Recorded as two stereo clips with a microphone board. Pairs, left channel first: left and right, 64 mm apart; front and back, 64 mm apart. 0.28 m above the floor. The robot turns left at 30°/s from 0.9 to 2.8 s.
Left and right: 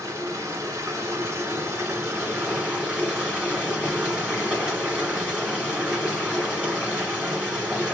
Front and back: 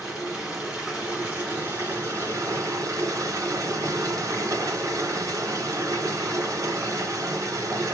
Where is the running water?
100° right, 1.5 m; by 7.9 s 155° right, 1.5 m.